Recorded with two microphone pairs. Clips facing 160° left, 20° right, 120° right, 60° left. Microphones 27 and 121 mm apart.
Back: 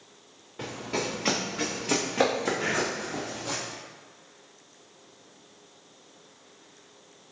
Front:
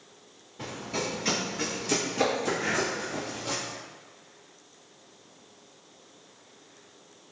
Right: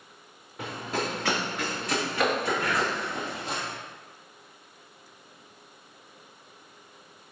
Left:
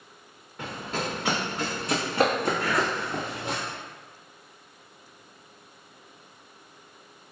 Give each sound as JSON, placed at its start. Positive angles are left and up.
{"t": 0.6, "sound": "running footsteps", "azimuth_deg": 160, "distance_m": 1.4}
{"t": 2.6, "sound": "breathing", "azimuth_deg": 120, "distance_m": 1.2}